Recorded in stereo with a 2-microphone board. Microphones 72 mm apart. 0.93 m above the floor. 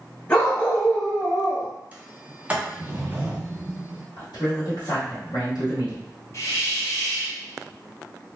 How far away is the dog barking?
About 1.7 m.